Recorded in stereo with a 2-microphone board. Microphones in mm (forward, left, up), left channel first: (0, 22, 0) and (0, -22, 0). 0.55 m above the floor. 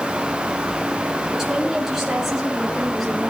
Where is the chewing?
No chewing in this recording.